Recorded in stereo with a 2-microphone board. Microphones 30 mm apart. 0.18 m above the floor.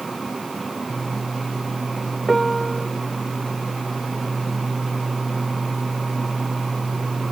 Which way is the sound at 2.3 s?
Centre (ahead or behind).